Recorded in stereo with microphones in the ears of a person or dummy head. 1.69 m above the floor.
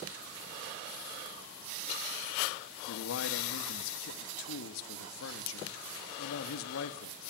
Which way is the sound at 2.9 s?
80° left.